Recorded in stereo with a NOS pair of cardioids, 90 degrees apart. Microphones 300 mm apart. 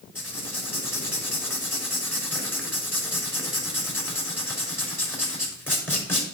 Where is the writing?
5° left, 4 m.